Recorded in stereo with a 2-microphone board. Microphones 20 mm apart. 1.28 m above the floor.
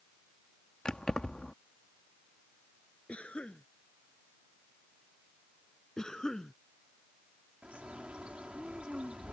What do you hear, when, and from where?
0.8 s keys jangling: 45° left (ahead or behind)
3.1 s a cough: 80° left
6.0 s a cough: 30° left (ahead or behind)
7.6 s a bird: 65° right (ahead or behind)